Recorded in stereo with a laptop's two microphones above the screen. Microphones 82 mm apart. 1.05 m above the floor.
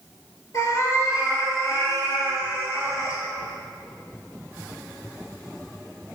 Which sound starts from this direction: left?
A cat meowing, at 0.5 s.